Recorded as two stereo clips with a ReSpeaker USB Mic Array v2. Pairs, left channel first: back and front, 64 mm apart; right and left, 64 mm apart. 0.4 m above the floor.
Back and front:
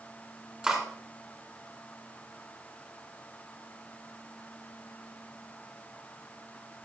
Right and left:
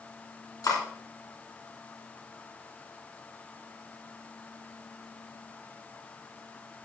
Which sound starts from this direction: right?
Cutlery clinking, at 0.6 s.